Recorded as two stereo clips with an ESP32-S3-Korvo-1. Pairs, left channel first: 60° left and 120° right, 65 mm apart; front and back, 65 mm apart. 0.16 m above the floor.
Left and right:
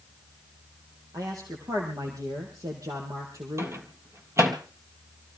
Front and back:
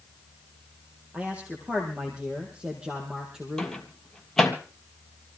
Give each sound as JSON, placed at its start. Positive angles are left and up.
{"t": 1.1, "sound": "a man speaking", "azimuth_deg": -110, "distance_m": 5.0}
{"t": 3.6, "sound": "a microwave", "azimuth_deg": -80, "distance_m": 3.0}